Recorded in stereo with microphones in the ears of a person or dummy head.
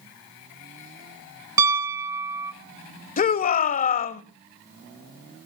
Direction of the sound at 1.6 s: 15° right (ahead or behind).